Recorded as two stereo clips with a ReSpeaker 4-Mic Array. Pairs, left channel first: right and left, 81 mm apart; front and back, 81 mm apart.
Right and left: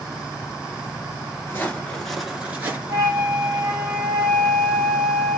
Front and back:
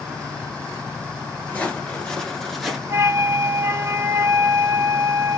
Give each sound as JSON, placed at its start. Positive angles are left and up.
{"t": 1.5, "sound": "footsteps", "azimuth_deg": -55, "distance_m": 1.3}
{"t": 2.9, "sound": "a flute", "azimuth_deg": 125, "distance_m": 1.6}